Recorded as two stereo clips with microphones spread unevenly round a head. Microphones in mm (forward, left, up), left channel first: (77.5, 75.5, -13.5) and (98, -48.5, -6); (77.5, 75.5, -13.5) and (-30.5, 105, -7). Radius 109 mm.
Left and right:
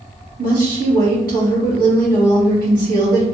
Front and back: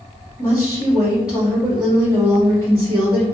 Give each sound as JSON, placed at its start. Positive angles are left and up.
{"t": 0.4, "sound": "a woman speaking", "azimuth_deg": -110, "distance_m": 1.9}